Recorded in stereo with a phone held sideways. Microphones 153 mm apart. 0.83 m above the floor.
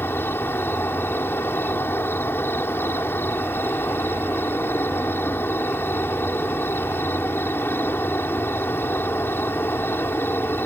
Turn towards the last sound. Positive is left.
turn(degrees=15)  # may be behind; listen again after turning